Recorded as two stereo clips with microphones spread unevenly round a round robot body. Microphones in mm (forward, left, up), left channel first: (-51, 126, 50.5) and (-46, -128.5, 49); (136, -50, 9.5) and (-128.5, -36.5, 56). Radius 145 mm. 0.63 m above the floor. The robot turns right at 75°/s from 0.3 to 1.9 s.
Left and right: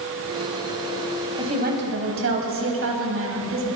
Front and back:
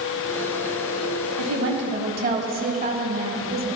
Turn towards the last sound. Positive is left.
turn(degrees=-125)